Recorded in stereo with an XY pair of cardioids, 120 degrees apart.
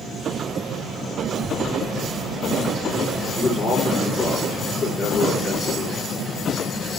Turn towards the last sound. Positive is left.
turn(degrees=5)